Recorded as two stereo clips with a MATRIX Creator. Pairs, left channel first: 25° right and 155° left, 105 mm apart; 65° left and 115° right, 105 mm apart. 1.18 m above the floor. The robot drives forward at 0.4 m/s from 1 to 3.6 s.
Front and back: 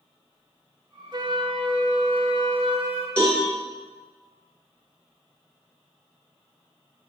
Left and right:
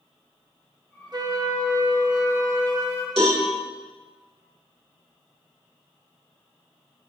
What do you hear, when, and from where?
1.1 s a flute: 160° right, 0.6 m; by 3.1 s 170° right, 1.4 m
3.2 s a cowbell: 100° right, 2.5 m